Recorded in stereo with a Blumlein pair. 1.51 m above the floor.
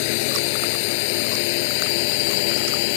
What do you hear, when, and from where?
0.0 s a drone: 45° left